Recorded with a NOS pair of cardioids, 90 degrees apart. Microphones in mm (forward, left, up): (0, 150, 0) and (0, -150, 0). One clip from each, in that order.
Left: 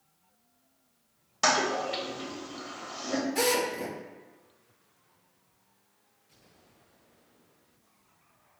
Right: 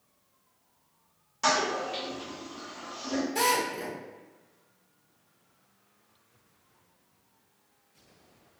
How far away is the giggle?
I don't hear a giggle.